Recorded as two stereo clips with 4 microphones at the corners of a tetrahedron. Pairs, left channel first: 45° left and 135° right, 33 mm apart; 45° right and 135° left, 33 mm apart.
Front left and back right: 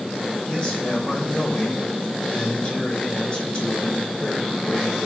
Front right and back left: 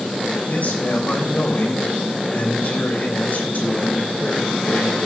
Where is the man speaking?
15° right, 3 m.